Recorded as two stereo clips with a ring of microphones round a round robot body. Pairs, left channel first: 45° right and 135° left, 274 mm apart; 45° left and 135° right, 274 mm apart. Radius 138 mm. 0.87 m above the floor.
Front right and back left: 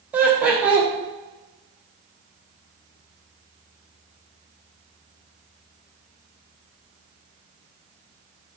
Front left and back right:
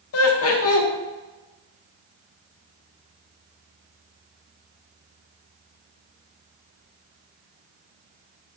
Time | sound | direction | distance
0.1 | laughter | 50° left | 0.5 m